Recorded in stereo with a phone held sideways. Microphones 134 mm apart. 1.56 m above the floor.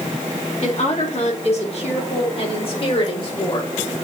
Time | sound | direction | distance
0.6 | a woman speaking | 60° left (ahead or behind) | 4 m